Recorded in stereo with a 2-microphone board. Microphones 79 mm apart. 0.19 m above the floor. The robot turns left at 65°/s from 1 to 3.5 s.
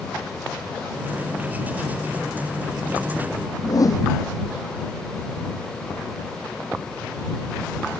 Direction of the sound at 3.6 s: 45° left (ahead or behind).